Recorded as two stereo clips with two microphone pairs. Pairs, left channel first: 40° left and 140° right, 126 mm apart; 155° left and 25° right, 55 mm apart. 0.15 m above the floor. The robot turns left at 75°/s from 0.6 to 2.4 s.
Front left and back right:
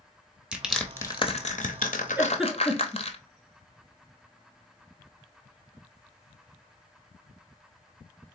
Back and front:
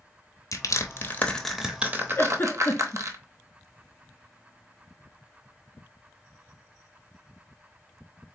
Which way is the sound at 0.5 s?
140° left.